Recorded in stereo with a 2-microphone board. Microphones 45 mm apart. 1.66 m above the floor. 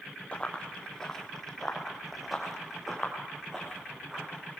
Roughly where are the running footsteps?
Left.